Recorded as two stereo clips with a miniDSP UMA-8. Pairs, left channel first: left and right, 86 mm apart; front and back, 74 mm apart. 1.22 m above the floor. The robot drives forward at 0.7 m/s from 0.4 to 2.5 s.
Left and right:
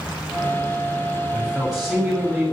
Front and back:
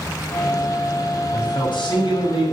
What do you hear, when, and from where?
1.3 s a man speaking: 5° right, 7.5 m